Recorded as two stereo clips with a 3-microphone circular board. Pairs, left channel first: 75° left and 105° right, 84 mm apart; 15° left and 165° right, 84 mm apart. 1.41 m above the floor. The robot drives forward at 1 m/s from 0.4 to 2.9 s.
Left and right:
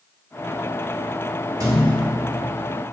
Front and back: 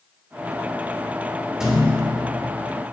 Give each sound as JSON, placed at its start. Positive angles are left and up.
{"t": 1.6, "sound": "a thud", "azimuth_deg": -80, "distance_m": 1.4}